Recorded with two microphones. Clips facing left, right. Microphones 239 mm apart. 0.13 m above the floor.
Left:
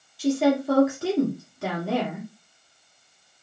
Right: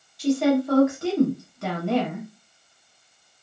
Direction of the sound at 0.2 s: Centre (ahead or behind).